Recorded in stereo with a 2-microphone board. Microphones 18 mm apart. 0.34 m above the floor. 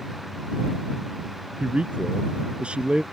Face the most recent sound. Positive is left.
turn(degrees=-75)  # may be behind; listen again after turning